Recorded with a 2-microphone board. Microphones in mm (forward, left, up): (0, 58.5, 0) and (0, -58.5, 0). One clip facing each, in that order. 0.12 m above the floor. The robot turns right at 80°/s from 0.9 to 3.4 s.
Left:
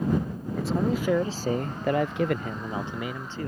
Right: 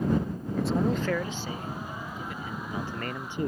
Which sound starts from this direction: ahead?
A man speaking, at 0.6 s.